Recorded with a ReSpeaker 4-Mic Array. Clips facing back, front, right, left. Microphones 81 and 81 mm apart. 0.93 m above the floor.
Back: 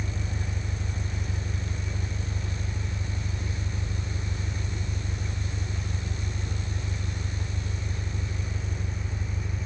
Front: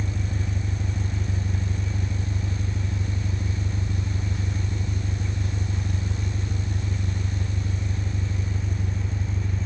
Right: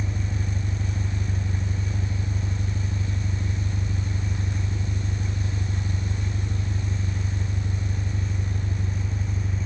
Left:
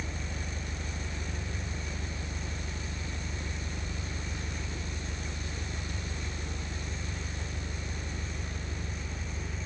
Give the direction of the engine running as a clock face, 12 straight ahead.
1 o'clock.